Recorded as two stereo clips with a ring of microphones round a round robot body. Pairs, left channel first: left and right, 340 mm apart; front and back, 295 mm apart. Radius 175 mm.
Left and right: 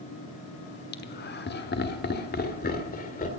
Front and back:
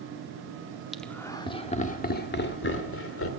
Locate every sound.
0.9 s laughter: 90° left, 1.1 m; by 3.3 s 30° left, 1.9 m